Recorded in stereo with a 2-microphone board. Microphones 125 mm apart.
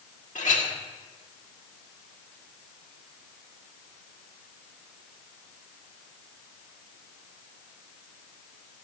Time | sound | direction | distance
0.3 | a clink | 80° left | 1.9 m